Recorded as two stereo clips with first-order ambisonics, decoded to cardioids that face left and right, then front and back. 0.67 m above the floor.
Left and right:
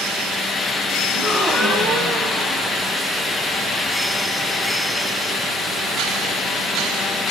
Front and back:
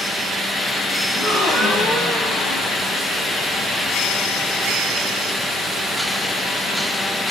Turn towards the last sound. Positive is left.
turn(degrees=35)